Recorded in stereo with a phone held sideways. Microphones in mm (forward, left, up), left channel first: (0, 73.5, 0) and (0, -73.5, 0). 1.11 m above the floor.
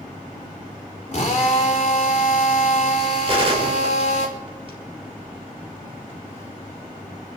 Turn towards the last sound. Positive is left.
turn(degrees=-40)  # may be behind; listen again after turning